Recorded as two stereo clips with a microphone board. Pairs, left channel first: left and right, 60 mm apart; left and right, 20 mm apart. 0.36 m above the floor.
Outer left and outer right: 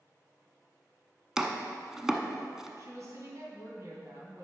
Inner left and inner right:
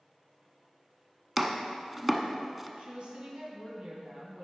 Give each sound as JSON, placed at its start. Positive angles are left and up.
{"t": 1.4, "sound": "chopping", "side_deg": -10, "distance_m": 0.7}
{"t": 2.8, "sound": "a woman speaking", "side_deg": -50, "distance_m": 2.5}